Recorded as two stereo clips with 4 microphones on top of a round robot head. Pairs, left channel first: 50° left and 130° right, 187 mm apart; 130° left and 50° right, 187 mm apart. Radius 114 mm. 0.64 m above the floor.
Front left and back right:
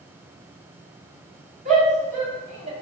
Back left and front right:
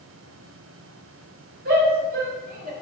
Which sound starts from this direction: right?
A shout, at 1.6 s.